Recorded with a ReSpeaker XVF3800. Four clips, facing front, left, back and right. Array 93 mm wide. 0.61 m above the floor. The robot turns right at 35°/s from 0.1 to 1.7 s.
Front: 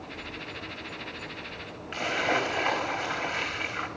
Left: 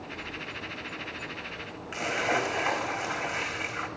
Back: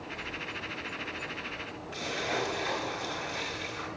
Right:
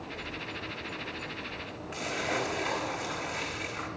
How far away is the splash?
About 1.2 m.